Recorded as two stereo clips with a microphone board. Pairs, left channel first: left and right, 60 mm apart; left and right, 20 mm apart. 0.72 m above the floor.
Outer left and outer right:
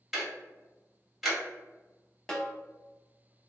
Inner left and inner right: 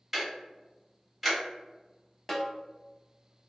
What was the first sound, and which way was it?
Ticking, 5° right (ahead or behind).